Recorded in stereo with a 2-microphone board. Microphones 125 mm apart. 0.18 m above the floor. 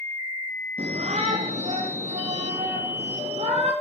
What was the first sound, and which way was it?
A shout, 60° right (ahead or behind).